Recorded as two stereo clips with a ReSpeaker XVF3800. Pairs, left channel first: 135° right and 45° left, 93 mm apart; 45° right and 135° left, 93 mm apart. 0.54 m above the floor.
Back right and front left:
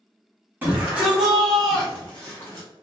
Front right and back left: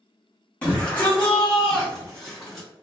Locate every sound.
0.6 s a shout: 5° left, 1.3 m; by 2.7 s 130° right, 1.4 m